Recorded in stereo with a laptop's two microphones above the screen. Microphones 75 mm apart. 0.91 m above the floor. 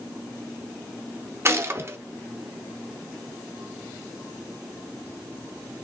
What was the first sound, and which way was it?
A gunshot, 35° right (ahead or behind).